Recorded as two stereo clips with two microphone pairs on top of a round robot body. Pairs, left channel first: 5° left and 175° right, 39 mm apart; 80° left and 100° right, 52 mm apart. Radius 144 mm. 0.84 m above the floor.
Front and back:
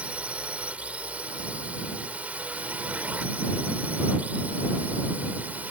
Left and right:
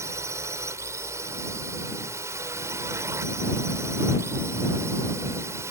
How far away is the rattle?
I don't hear a rattle.